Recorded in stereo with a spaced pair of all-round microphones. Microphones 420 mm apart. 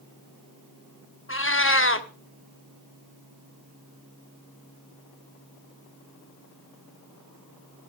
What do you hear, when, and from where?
1.3 s a cat meowing: 30° left (ahead or behind), 0.9 m